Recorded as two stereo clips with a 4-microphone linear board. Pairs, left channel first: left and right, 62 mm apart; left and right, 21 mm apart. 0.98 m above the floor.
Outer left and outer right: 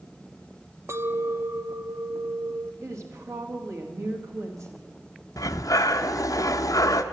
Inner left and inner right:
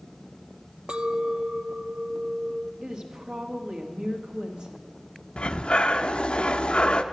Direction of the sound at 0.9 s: 45° right (ahead or behind).